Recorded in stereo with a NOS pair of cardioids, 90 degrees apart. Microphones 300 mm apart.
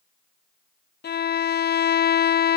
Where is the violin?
35° left.